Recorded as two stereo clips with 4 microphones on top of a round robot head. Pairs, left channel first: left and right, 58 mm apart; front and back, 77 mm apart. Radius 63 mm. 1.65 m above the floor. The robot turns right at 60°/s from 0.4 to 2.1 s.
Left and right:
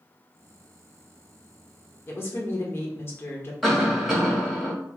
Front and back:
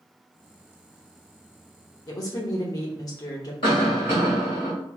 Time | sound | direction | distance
2.1 | a woman speaking | 40° left | 0.8 m
3.6 | a cough | 5° left | 1.8 m